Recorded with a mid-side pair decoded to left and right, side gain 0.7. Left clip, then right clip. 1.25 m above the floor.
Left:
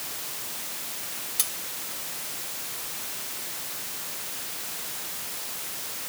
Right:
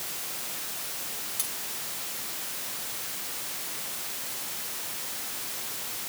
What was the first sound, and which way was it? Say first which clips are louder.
Cutlery clinking: left 7 dB; 25° left.